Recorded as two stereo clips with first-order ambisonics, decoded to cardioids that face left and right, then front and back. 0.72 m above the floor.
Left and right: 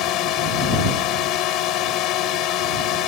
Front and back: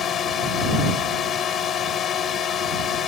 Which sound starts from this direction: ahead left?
A drone, at 0.0 s.